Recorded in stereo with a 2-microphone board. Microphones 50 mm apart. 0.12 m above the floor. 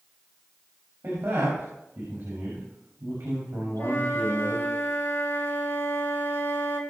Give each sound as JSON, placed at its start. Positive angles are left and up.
{"t": 1.0, "sound": "a man speaking", "side_deg": -60, "distance_m": 6.5}
{"t": 3.8, "sound": "a flute", "side_deg": 55, "distance_m": 3.0}